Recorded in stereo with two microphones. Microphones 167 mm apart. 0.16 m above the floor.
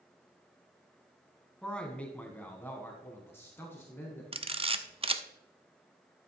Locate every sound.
1.6 s a man speaking: 5° left (ahead or behind), 1.4 m; by 4.2 s 15° left (ahead or behind), 1.9 m
4.3 s a camera shutter: 30° right (ahead or behind), 0.5 m